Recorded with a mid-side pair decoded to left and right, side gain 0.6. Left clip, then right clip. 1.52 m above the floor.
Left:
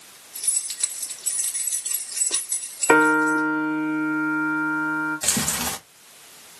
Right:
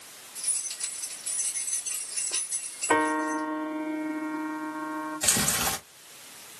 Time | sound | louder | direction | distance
0.3 | keys jangling | left 6 dB | 70° left | 2.5 m
2.9 | a piano | left 8 dB | 70° left | 2.5 m
5.2 | chewing | left 1 dB | 15° left | 1.7 m